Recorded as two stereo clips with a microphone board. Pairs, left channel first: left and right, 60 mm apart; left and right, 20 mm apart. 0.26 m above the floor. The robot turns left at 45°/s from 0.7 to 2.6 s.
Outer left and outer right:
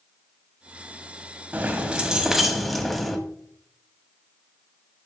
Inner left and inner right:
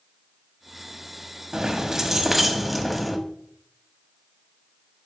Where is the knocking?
No knocking in this recording.